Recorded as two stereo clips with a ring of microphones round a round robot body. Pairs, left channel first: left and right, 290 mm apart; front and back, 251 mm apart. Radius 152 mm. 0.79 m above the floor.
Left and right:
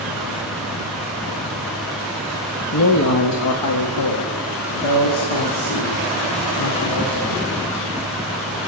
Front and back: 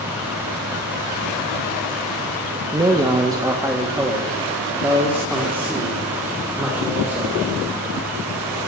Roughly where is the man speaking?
Left.